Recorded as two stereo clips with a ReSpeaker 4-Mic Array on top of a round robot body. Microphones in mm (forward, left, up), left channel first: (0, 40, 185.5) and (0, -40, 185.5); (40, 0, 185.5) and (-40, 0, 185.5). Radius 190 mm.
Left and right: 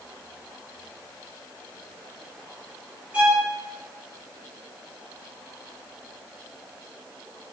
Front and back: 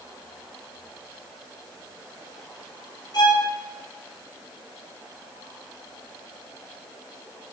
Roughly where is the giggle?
I don't hear a giggle.